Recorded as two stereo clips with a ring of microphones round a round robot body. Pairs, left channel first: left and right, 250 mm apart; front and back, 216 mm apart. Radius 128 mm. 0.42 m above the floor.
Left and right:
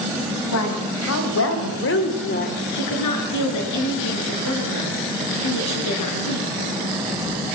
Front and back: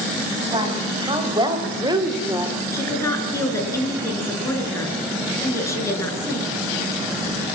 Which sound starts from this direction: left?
A woman speaking, at 2.7 s.